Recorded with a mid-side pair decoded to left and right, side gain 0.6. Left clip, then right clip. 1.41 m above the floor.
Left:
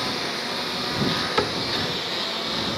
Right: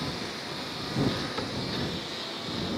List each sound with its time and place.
0.0 s a lawn mower: 40° left; by 2.8 s 45° left
1.4 s a cupboard door: 60° left